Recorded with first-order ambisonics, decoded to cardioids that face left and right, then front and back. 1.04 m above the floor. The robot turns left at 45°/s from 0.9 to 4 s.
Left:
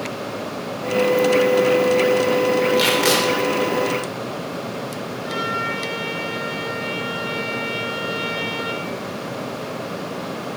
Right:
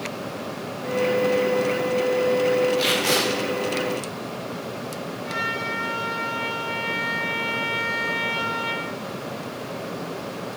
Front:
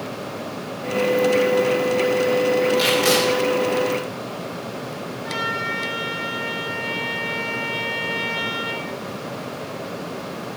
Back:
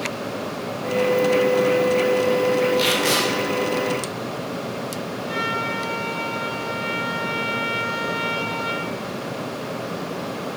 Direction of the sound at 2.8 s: 95° left.